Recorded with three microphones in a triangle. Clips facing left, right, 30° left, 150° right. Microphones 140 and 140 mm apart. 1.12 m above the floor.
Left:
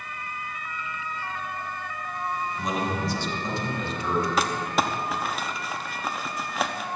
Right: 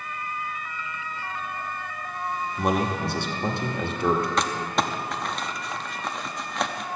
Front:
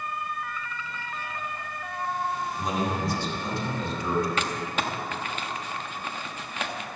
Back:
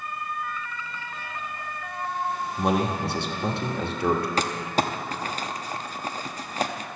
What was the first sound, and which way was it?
A man speaking, 125° right.